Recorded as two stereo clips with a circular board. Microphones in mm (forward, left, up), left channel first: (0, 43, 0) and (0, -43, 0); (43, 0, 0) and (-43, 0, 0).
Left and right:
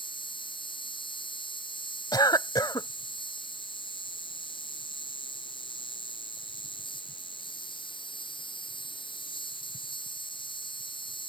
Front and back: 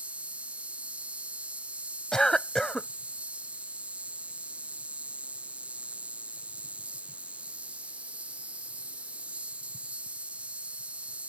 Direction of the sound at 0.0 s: 105° left.